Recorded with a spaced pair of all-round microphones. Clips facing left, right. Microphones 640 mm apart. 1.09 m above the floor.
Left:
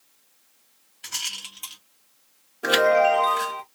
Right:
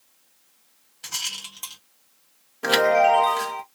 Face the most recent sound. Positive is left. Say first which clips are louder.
# even
turn(degrees=-30)  # may be behind; listen again after turning